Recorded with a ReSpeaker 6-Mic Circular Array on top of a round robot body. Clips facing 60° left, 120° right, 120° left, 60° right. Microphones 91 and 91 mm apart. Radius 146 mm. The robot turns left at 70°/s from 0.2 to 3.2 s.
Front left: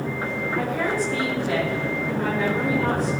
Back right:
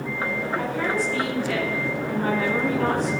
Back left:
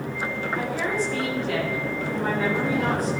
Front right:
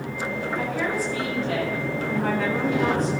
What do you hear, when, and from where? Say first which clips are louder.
0.6 s a woman speaking: front left 2 dB, even; 50° left, 10 m; by 3.1 s 125° right, 10 m